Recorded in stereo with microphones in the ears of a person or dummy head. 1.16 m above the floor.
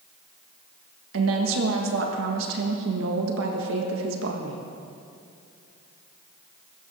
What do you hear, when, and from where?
1.1 s a woman speaking: 70° right (ahead or behind), 1.5 m